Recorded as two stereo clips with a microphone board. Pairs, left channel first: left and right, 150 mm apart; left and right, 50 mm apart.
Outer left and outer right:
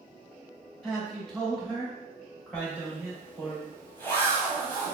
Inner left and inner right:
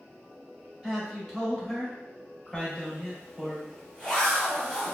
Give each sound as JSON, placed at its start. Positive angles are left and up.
{"t": 0.8, "sound": "a man speaking", "side_deg": 0, "distance_m": 1.4}
{"t": 2.5, "sound": "a zipper", "side_deg": 15, "distance_m": 1.2}